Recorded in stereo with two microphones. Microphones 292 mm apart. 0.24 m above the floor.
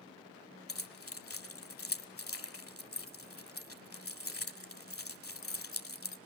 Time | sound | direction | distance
0.7 | keys jangling | 50° left (ahead or behind) | 1.0 m